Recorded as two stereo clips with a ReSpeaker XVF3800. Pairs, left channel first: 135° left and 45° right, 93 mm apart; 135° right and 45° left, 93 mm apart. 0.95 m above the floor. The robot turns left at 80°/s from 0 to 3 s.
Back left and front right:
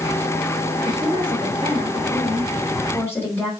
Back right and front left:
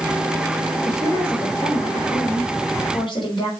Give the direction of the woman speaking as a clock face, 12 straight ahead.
12 o'clock.